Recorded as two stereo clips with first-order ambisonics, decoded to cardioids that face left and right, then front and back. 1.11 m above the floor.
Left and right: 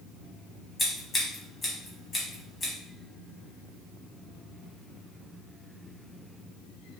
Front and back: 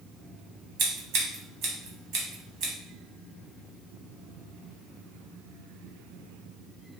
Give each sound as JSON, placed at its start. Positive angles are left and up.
{"t": 0.8, "sound": "scissors", "azimuth_deg": 160, "distance_m": 1.2}